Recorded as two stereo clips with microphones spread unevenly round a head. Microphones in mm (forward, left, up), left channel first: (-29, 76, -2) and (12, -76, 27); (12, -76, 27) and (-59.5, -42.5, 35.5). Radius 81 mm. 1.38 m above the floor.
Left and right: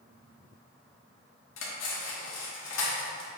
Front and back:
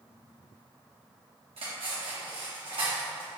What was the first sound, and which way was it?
Cutlery clinking, 105° left.